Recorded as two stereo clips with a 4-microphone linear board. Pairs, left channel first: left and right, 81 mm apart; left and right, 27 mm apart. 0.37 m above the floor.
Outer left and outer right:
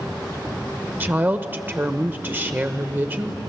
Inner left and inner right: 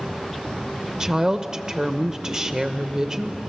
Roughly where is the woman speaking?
Right.